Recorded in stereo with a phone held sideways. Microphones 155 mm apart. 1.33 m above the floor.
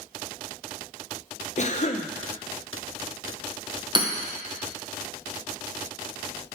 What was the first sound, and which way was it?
A cough, 50° left (ahead or behind).